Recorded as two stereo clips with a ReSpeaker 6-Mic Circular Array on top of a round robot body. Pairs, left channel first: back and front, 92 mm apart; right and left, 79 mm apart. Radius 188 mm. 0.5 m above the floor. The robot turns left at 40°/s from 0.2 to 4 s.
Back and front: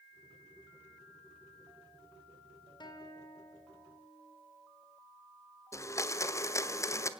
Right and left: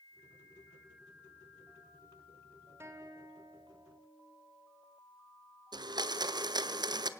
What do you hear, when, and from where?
2.8 s a guitar: 145° left, 2 m; by 4.4 s 100° left, 2 m
5.7 s a blender: 120° left, 1.0 m